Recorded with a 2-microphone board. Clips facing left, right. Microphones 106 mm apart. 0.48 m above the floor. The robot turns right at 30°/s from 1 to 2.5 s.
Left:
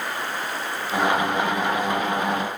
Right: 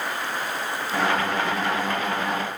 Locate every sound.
Only background noise.